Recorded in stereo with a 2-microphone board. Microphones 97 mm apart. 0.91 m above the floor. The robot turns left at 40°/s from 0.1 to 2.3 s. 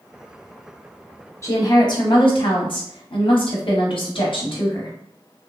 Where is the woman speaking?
150° left, 0.8 m; by 4.9 s 115° left, 0.8 m.